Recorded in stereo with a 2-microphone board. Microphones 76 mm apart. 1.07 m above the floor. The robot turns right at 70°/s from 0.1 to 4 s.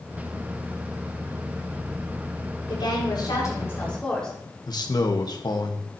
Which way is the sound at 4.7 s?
60° left (ahead or behind).